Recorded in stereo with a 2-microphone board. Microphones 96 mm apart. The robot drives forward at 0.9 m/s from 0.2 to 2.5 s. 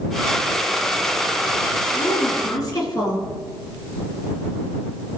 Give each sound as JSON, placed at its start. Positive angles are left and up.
{"t": 1.9, "sound": "a woman speaking", "side_deg": 45, "distance_m": 4.5}